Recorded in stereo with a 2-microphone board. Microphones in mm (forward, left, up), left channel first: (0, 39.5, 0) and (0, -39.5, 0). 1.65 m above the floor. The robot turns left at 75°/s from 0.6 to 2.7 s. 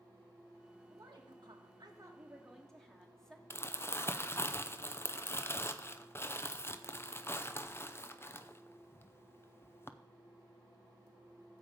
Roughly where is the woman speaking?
Ahead right.